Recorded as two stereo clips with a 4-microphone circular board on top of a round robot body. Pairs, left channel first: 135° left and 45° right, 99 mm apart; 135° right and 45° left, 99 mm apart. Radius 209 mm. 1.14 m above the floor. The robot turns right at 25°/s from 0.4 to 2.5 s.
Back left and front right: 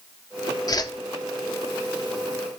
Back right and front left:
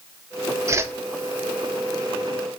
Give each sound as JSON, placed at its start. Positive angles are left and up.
{"t": 0.7, "sound": "a whoosh", "azimuth_deg": 95, "distance_m": 0.9}